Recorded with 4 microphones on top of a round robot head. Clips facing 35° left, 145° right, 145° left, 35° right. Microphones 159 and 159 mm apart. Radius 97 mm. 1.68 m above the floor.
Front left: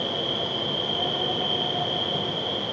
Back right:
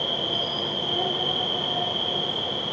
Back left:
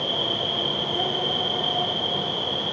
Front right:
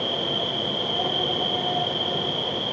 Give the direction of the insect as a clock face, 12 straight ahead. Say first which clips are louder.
Front left 1 dB, front right 1 dB; 4 o'clock.